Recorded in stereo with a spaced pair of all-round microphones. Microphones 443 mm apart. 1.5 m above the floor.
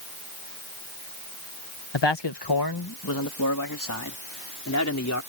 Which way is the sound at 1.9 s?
75° left (ahead or behind).